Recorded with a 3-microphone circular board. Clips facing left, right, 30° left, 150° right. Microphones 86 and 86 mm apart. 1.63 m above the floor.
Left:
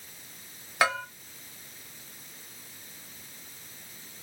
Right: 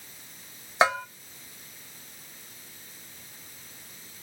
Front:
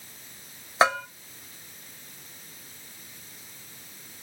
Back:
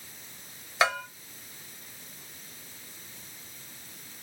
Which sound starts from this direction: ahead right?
A bell, at 0.8 s.